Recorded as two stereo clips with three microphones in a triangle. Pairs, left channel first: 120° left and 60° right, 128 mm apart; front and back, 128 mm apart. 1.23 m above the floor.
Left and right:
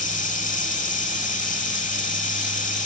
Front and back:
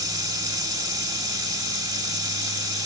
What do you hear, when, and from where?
0.0 s running water: 125° left, 1.9 m